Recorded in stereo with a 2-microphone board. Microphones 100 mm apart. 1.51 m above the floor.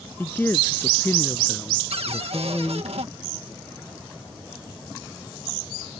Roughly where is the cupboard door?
Right.